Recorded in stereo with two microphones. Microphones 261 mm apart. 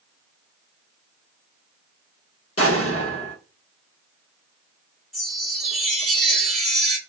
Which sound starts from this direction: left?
An explosion, at 2.6 s.